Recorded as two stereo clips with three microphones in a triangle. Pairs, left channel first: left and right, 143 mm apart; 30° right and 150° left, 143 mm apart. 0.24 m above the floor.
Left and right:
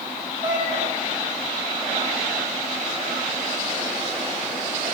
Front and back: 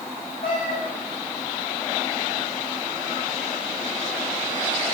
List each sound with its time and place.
0.4 s a cat meowing: 30° right, 5.5 m